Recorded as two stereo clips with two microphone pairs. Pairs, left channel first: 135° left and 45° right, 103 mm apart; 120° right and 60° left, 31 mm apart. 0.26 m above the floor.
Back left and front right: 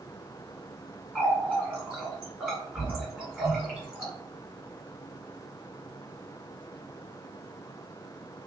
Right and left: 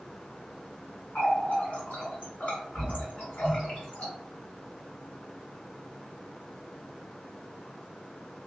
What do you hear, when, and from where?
1.1 s a running tap: 130° right, 1.6 m